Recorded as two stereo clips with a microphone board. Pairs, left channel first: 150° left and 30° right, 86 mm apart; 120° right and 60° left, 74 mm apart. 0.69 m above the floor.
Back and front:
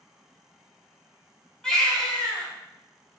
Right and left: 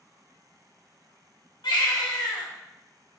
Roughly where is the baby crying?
Behind right.